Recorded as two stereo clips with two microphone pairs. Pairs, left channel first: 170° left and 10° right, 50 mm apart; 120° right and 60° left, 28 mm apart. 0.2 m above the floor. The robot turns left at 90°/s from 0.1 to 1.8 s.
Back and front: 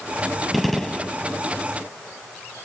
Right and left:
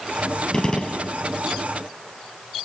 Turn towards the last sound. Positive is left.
turn(degrees=145)